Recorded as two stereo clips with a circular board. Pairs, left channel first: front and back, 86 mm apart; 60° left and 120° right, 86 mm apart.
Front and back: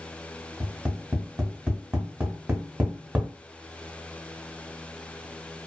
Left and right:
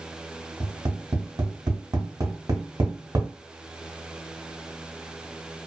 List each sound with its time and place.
0.6 s tapping: 115° right, 1.1 m